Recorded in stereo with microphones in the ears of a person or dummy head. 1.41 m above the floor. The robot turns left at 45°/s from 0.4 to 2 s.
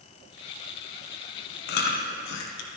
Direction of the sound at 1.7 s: 55° left (ahead or behind).